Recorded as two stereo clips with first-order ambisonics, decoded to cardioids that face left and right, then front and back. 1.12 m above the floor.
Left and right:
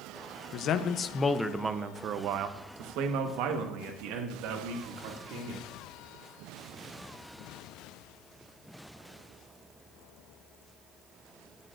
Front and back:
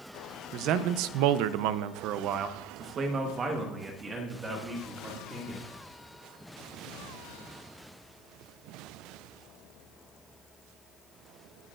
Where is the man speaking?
135° left, 0.8 m; by 5.6 s 100° right, 2.5 m.